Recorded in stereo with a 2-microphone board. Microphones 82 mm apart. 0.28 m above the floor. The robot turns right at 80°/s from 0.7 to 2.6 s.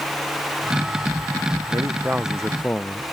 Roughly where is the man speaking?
Ahead right.